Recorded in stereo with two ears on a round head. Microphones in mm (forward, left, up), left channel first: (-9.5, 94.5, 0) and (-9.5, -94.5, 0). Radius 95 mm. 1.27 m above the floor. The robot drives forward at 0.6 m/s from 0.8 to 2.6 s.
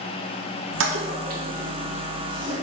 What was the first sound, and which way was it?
A toilet flushing, 65° right (ahead or behind).